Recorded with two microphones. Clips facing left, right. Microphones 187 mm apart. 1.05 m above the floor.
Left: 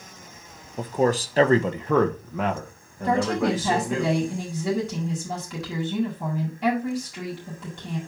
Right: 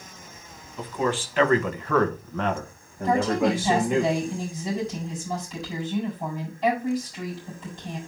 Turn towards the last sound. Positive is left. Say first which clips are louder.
# even
turn(degrees=80)